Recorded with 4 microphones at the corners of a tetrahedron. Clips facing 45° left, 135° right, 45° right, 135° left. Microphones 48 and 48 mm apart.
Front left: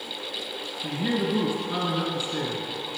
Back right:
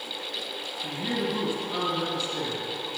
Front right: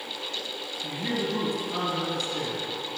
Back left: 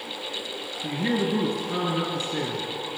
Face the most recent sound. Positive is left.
turn(degrees=90)